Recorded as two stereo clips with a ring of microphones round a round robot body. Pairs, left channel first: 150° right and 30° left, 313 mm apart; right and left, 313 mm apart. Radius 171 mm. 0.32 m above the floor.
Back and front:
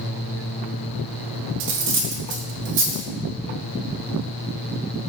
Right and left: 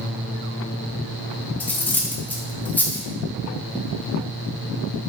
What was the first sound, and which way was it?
Cutlery clinking, 5° right.